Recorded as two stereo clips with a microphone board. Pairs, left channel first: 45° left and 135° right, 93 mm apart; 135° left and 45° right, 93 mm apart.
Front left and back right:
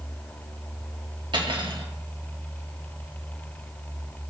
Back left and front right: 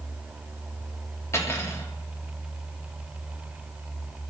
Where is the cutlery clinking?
165° right, 1.3 m.